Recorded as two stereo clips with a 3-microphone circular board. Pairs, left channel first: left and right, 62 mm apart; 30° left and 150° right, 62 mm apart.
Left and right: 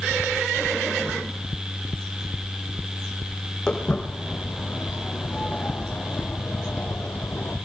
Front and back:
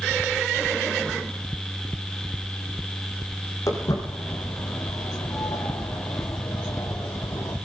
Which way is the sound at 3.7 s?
15° left.